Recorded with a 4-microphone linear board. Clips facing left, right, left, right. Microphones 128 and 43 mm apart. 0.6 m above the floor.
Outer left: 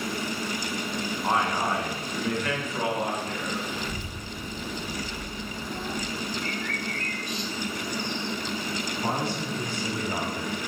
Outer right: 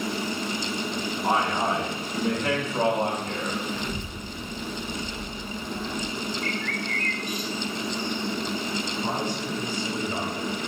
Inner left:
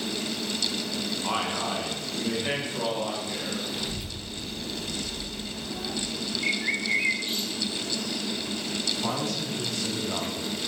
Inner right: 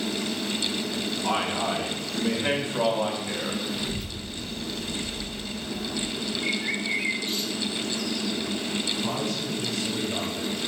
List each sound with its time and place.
1.2 s a man speaking: 5° right (ahead or behind), 2 m; by 3.6 s 45° right (ahead or behind), 3 m
3.7 s a child speaking: 10° left (ahead or behind), 2.5 m
6.4 s a bird: 30° left (ahead or behind), 1.1 m
9.0 s a man speaking: 75° left (ahead or behind), 4 m